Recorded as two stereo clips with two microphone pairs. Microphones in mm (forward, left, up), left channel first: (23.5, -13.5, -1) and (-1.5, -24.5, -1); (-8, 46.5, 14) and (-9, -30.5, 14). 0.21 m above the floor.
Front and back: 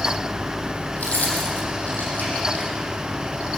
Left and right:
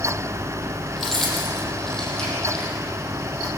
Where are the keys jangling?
5° left, 5.5 m; by 2.7 s 10° left, 7 m.